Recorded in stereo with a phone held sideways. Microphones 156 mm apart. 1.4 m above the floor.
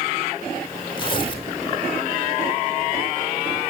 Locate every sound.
1.0 s tearing paper: 35° left (ahead or behind), 4 m